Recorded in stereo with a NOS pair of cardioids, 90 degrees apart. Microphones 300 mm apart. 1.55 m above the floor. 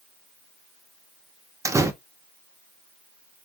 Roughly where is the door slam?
Ahead.